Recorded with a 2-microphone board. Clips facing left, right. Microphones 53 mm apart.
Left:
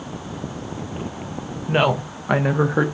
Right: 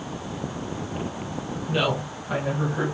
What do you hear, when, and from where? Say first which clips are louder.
1.7 s a woman speaking: left 6 dB; 45° left (ahead or behind), 1.0 m; by 2.9 s 75° left (ahead or behind), 0.9 m